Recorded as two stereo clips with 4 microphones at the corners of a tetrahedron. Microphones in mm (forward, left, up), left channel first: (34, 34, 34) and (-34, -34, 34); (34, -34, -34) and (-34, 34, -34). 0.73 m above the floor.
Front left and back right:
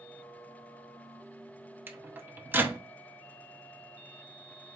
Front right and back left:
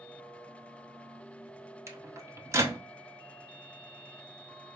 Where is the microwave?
170° left, 0.6 m.